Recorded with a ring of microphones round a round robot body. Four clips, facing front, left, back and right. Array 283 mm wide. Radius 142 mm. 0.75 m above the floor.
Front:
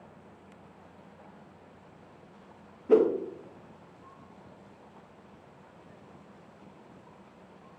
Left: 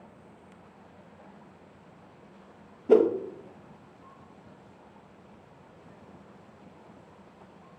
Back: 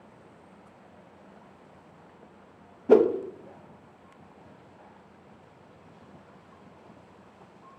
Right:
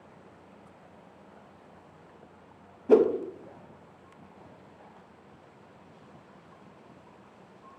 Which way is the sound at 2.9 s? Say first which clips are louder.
Even, back 3 dB; 170° left.